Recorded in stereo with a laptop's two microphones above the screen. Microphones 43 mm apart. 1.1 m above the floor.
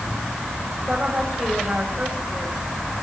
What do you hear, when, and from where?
0.9 s a woman speaking: 30° right (ahead or behind), 7 m